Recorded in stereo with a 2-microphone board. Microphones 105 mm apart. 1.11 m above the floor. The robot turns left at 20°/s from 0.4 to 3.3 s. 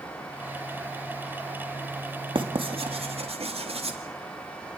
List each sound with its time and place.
2.4 s writing: 55° right (ahead or behind), 2 m; by 4.0 s 70° right (ahead or behind), 2 m